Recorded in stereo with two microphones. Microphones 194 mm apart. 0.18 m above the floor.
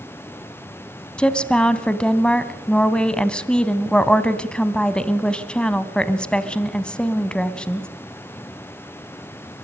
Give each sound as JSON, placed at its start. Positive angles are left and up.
{"t": 1.2, "sound": "a woman speaking", "side_deg": 5, "distance_m": 1.0}